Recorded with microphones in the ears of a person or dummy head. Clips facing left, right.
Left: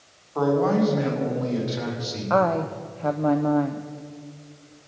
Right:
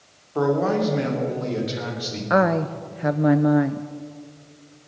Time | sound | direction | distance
0.3 | a man speaking | 20° right (ahead or behind) | 3 m
2.3 | a woman speaking | 20° right (ahead or behind) | 0.5 m